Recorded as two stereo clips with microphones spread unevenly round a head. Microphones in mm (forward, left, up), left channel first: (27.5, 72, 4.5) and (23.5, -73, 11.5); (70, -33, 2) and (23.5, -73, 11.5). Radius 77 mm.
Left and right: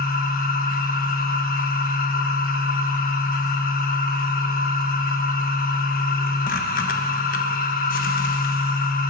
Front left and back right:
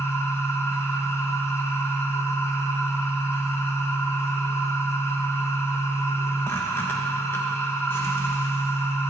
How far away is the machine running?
About 1.0 m.